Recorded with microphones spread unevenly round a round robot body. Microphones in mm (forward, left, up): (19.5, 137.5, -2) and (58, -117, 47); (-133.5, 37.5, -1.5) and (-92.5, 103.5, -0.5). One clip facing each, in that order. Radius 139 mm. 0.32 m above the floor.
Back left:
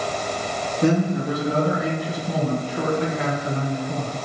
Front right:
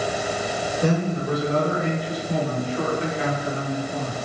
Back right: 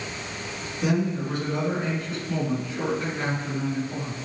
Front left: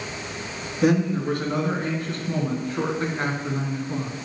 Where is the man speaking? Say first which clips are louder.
Back left 4 dB, front left 5 dB; 100° left, 5 m; by 4.2 s 110° left, 3.5 m.